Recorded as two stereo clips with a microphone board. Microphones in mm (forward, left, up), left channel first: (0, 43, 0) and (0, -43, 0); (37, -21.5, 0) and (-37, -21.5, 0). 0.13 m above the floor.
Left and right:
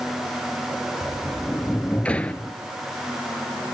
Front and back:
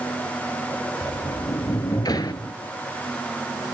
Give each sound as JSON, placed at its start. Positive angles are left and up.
{"t": 1.0, "sound": "a sliding door", "azimuth_deg": 15, "distance_m": 0.9}